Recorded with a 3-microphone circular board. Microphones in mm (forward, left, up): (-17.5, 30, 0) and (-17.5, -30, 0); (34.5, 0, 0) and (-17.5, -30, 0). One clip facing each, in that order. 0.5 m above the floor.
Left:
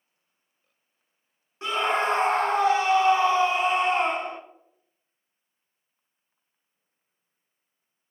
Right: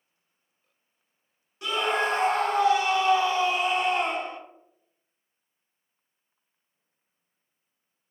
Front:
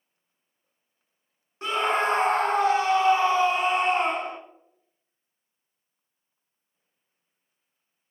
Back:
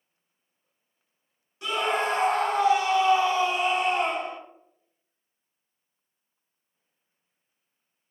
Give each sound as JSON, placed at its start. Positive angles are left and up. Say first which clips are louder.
{"t": 1.6, "sound": "a scream", "louder": "left 1 dB, front 2 dB", "azimuth_deg": 50, "distance_m": 0.8}